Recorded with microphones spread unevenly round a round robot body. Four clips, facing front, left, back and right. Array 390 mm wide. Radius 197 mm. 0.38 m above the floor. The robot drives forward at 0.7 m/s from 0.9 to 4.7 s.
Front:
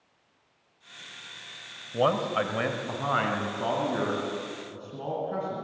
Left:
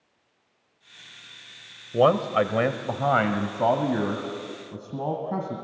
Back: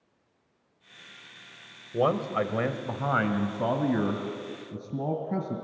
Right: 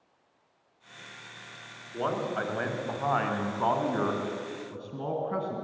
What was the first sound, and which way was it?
A man speaking, 90° left.